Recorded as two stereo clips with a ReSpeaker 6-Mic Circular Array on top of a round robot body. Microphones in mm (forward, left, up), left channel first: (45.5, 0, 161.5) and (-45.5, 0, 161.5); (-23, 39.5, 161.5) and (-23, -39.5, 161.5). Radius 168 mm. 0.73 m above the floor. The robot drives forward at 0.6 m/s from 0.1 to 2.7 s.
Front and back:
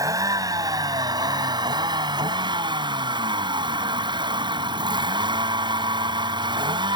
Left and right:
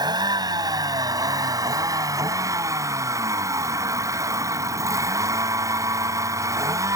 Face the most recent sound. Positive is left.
turn(degrees=-140)